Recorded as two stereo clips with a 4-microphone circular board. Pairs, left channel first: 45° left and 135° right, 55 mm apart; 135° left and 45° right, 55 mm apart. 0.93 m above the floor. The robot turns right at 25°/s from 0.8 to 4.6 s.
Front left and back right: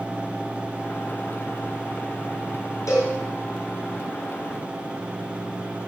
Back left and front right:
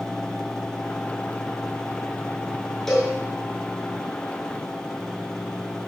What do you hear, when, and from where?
2.9 s a cowbell: 50° left, 5.5 m; by 3.1 s 60° left, 5.5 m